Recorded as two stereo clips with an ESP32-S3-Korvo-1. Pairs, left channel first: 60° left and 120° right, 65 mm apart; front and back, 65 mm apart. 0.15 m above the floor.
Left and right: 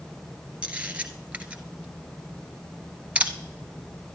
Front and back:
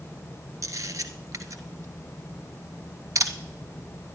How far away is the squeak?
I don't hear a squeak.